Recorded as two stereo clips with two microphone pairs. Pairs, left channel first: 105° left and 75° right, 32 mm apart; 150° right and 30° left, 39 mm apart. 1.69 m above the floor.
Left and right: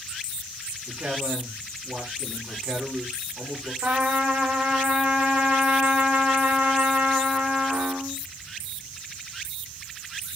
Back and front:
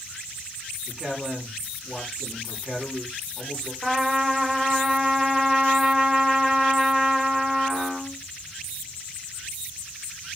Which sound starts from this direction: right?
A man speaking, at 0.9 s.